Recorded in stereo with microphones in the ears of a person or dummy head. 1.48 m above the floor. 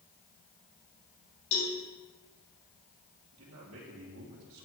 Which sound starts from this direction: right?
A man speaking, at 3.3 s.